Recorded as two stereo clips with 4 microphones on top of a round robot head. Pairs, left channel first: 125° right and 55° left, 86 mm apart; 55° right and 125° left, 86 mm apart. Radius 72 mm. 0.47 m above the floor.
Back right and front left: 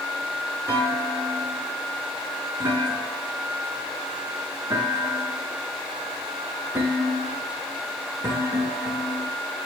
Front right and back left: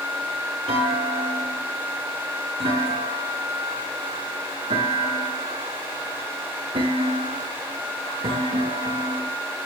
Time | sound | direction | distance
0.7 | a clunk | 115° left | 7.5 m